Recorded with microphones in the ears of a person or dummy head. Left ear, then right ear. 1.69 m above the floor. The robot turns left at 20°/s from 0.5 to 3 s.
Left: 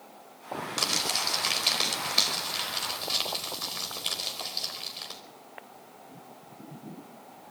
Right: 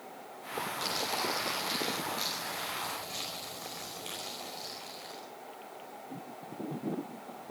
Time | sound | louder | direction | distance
0.8 | crumpling | left 7 dB | 75° left (ahead or behind) | 4.5 m